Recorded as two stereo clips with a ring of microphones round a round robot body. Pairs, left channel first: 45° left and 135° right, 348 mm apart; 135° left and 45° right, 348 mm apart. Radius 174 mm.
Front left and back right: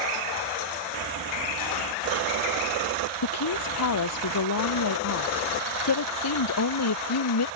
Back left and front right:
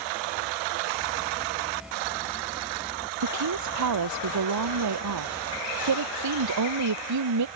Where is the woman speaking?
Straight ahead.